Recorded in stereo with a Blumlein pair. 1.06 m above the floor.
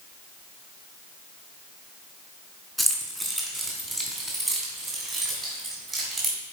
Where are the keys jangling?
5° right, 1.6 m; by 6.4 s 25° right, 4 m.